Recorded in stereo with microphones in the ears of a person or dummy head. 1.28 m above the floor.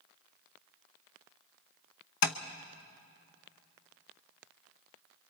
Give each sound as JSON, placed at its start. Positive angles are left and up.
{"t": 2.2, "sound": "tapping", "side_deg": 55, "distance_m": 0.8}